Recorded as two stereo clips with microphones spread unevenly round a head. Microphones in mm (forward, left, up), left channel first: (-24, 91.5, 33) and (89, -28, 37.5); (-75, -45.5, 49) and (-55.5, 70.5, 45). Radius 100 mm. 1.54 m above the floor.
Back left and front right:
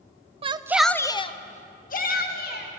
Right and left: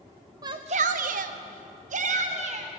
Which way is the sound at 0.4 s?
10° left.